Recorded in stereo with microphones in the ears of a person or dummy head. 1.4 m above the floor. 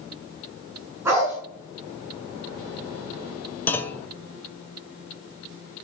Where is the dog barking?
10° right (ahead or behind), 6.5 m.